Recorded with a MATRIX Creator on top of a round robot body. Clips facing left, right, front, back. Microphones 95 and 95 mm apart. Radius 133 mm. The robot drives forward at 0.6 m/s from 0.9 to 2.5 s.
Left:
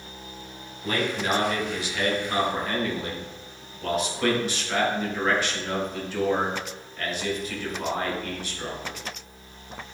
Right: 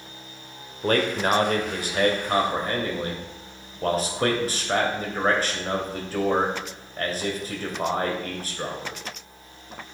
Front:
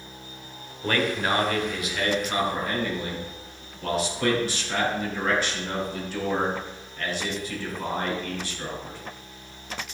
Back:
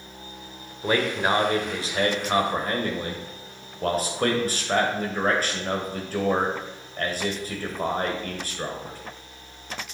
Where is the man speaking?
105° right, 1.6 m; by 9.0 s 135° right, 2 m.